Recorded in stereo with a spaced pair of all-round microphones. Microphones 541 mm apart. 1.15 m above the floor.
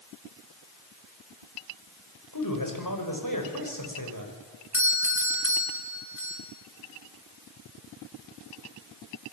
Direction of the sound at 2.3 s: 35° left (ahead or behind).